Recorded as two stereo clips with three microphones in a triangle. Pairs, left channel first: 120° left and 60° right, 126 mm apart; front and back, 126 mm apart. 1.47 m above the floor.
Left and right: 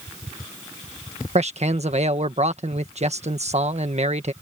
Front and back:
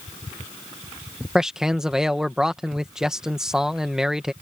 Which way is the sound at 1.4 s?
95° right.